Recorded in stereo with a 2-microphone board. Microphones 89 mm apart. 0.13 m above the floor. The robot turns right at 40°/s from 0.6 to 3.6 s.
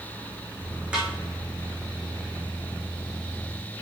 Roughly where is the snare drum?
Centre.